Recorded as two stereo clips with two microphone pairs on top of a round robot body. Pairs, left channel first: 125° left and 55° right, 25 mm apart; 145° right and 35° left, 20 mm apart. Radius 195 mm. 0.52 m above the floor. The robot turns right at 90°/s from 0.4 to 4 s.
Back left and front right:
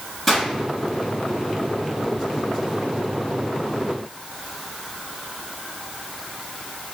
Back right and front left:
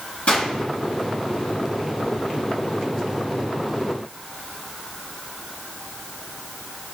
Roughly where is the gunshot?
Behind right.